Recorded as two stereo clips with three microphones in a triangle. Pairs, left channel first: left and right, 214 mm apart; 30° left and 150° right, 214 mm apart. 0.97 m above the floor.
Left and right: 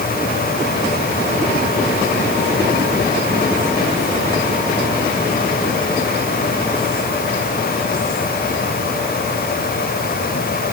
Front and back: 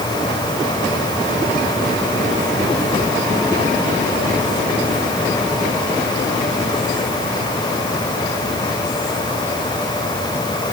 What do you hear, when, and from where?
Only background noise.